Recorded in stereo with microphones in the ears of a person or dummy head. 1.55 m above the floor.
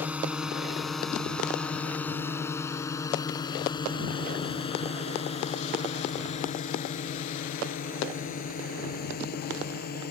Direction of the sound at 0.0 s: 10° right (ahead or behind).